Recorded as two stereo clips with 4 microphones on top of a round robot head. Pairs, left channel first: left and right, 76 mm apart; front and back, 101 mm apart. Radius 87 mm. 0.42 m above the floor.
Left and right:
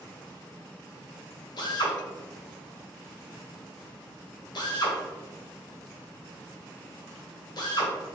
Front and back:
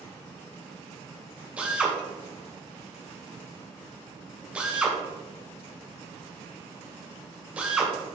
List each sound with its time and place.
1.6 s a drill: 105° left, 1.8 m